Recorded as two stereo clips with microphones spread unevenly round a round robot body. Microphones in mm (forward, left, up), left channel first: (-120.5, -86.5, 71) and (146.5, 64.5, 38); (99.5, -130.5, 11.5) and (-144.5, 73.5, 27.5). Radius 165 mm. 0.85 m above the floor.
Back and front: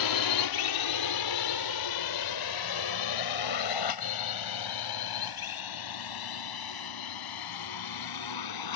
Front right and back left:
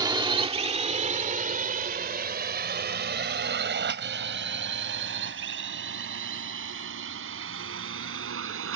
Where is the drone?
140° right; by 8.8 s 170° right.